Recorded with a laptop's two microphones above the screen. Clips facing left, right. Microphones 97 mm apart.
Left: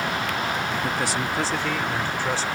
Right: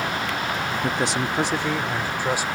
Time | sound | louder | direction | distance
0.8 | a man speaking | right 2 dB | 25° right (ahead or behind) | ?